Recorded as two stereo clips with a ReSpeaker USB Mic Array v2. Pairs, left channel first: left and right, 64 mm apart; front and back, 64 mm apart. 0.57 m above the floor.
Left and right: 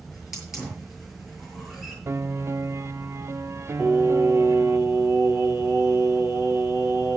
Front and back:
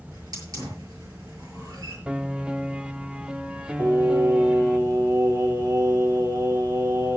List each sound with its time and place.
0.1 s a hiss: 175° right, 7 m
2.1 s a piano: 110° right, 0.7 m
3.8 s singing: 160° right, 5.5 m